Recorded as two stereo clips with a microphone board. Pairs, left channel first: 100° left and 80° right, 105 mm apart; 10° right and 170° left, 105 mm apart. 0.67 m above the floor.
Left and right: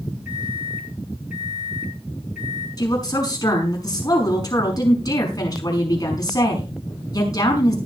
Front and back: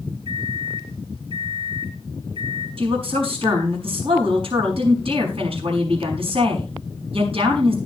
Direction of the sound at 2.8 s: 155° left.